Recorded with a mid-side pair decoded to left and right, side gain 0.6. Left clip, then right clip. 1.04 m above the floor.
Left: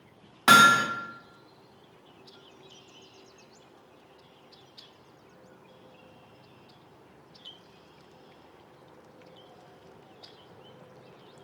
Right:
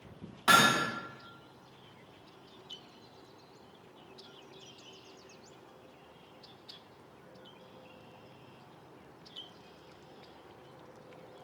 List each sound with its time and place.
0.5 s hammering: 50° left, 0.7 m